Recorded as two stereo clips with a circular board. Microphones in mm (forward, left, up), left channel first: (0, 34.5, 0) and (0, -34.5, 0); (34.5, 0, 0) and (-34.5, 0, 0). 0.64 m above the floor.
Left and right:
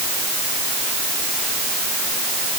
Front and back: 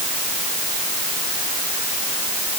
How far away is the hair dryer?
No hair dryer in this recording.